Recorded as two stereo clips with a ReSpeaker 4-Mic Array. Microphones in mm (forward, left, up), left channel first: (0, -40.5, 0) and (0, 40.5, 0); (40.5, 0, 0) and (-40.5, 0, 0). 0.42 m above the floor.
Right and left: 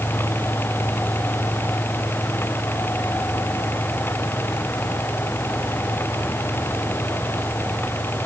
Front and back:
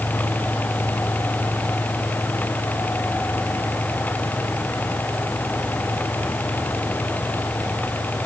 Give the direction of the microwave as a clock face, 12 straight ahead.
I don't hear a microwave.